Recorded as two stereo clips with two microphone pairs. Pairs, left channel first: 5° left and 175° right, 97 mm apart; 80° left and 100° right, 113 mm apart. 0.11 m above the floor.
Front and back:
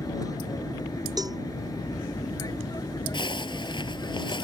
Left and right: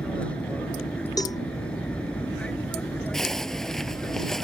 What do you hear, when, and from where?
0.0 s an aircraft: 10° left
1.2 s a cowbell: 135° left
3.1 s a zipper: 5° right